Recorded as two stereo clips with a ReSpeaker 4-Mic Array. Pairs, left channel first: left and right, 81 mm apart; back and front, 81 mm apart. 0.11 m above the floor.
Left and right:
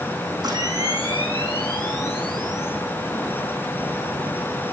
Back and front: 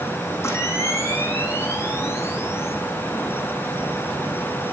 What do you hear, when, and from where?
0.4 s a camera shutter: 125° right, 7.5 m